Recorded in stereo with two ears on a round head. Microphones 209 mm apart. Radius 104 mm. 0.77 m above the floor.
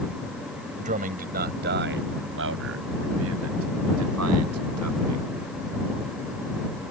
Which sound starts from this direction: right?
A man speaking, at 0.8 s.